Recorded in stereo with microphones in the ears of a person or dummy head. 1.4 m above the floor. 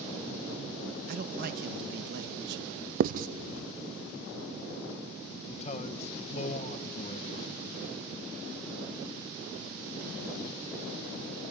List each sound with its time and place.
1.1 s a man speaking: 50° right (ahead or behind), 1.6 m; by 2.9 s 65° right (ahead or behind), 3 m
3.0 s writing: 45° right (ahead or behind), 0.6 m
5.5 s a man speaking: 40° left (ahead or behind), 1.6 m